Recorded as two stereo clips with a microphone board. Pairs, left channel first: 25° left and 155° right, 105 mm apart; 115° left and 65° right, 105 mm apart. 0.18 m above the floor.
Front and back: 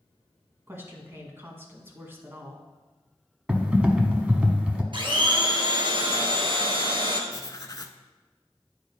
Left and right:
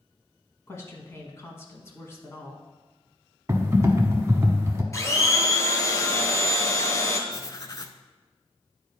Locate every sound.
0.7 s a woman speaking: 155° left, 1.3 m
3.5 s typing on a keyboard: 90° right, 0.9 m
4.9 s a blender: 170° left, 1.0 m
7.3 s writing: 70° left, 0.5 m